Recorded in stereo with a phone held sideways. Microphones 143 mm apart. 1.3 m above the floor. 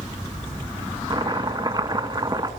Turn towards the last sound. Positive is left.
turn(degrees=-35)  # may be behind; listen again after turning